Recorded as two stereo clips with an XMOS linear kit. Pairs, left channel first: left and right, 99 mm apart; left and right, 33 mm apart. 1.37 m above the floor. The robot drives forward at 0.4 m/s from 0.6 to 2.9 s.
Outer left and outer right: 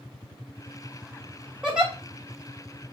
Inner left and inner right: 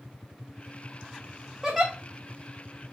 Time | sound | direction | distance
1.6 | a giggle | 10° right (ahead or behind) | 3 m